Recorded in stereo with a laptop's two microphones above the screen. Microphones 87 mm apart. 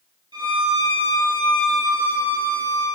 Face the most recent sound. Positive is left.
turn(degrees=-60)  # may be behind; listen again after turning